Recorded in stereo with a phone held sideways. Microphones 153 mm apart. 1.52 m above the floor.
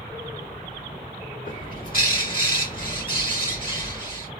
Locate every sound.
1.4 s a bird: 60° left (ahead or behind), 1.5 m